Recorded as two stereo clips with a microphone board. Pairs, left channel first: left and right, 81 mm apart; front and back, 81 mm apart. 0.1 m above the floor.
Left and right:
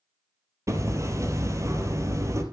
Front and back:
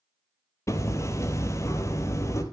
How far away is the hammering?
About 2.5 m.